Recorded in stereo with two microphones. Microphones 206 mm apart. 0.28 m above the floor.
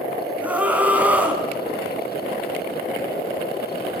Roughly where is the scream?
Centre.